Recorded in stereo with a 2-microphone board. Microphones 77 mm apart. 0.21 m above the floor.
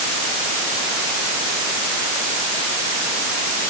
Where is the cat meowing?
I don't hear a cat meowing.